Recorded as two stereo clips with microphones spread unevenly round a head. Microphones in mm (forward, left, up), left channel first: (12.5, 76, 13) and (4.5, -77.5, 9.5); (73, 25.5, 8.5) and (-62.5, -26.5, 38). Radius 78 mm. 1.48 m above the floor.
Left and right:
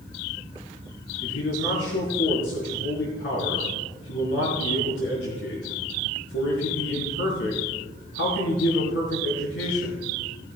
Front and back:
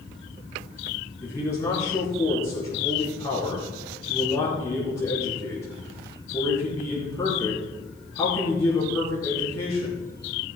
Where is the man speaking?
90° left, 4 m.